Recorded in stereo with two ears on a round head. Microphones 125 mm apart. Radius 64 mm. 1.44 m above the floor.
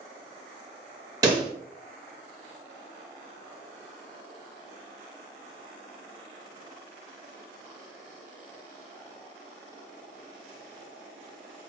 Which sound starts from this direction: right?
A pop, at 1.2 s.